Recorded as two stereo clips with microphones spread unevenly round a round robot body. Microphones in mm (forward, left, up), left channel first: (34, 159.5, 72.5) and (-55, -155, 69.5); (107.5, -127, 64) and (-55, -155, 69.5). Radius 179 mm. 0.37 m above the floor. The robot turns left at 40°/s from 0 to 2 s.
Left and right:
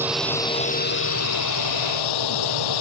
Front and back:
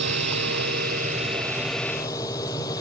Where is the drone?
170° left; by 2.8 s 90° left.